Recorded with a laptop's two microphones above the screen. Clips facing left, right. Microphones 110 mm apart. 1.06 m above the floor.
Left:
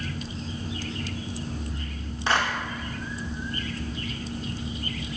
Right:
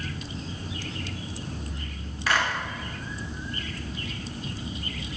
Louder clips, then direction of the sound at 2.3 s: Left 1 dB; 25° left (ahead or behind).